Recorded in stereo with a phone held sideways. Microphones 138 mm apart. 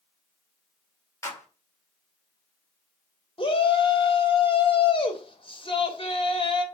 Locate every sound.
1.2 s a clap: 20° left (ahead or behind), 2 m
3.4 s a shout: 40° left (ahead or behind), 2 m